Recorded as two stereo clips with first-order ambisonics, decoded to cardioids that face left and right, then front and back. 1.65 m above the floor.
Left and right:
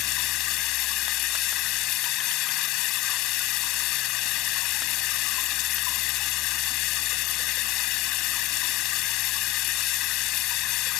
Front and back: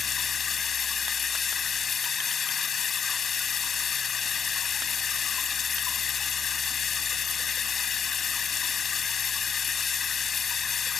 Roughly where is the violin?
I don't hear a violin.